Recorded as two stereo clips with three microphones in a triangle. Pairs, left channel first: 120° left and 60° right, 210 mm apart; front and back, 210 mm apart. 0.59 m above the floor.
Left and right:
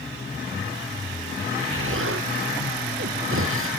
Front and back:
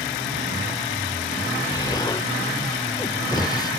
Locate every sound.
1.7 s an explosion: 70° right, 0.7 m